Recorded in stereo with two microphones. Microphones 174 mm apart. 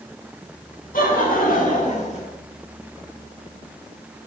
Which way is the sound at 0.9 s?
60° left (ahead or behind).